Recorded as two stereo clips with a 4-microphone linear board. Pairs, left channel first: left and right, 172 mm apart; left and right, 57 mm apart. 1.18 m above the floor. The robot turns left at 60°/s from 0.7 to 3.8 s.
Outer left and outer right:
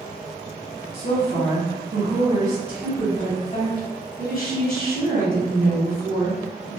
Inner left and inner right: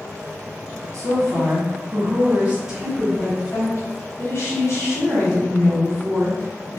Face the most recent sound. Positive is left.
turn(degrees=120)